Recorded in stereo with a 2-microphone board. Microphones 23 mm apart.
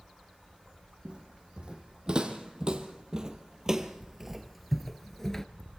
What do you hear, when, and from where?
1.1 s footsteps: 40° right (ahead or behind), 2.5 m; by 5.5 s 20° left (ahead or behind), 0.9 m